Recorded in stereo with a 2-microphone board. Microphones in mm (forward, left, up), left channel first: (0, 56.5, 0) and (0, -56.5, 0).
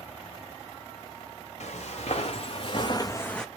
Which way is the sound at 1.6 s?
75° left (ahead or behind).